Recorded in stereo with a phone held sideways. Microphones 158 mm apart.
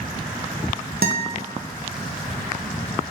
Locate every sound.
1.0 s a guitar: 75° right (ahead or behind), 0.6 m